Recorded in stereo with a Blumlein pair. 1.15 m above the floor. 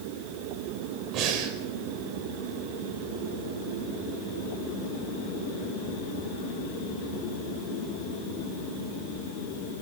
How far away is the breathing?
About 4.5 m.